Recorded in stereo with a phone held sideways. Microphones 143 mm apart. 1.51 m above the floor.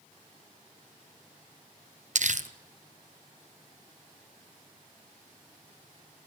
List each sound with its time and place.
2.1 s crumpling: 60° right (ahead or behind), 0.8 m